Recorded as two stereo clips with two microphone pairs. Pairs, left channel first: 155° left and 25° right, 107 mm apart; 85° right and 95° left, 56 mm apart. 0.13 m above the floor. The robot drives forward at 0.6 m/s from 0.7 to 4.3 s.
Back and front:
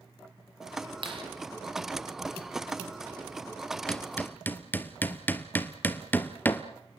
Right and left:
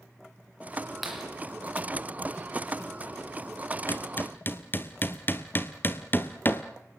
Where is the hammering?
125° right, 1.2 m; by 6.6 s 135° right, 1.4 m.